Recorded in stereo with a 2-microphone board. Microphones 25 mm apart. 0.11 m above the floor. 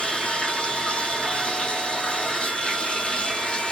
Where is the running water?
40° left (ahead or behind), 1.5 m.